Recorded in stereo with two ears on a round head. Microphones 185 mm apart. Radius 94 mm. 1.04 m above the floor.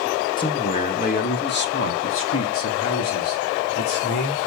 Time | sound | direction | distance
0.4 | a man speaking | 25° left (ahead or behind) | 1.6 m